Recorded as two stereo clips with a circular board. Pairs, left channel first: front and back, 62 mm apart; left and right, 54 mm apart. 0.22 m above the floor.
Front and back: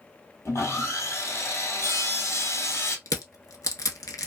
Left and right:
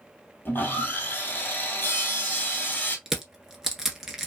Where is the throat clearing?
No throat clearing in this recording.